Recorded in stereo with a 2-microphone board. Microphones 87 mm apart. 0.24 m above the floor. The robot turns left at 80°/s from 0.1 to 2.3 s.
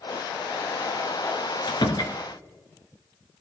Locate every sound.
1.7 s a door slam: 85° left, 2 m; by 2.1 s 45° left, 2 m